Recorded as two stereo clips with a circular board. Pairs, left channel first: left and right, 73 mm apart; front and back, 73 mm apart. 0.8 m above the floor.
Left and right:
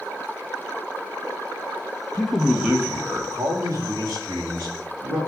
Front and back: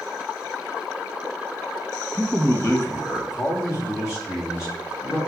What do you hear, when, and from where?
2.1 s a man speaking: 60° left, 1.1 m; by 5.2 s 55° right, 4 m